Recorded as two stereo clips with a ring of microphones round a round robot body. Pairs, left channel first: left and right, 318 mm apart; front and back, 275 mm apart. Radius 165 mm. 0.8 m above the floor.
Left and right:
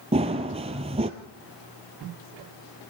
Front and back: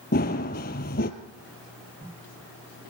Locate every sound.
0.1 s running footsteps: 30° right, 0.9 m